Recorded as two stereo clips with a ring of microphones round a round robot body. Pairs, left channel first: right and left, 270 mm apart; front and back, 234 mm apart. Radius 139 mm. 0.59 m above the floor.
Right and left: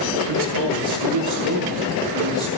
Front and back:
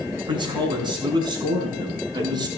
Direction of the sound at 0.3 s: 110° left.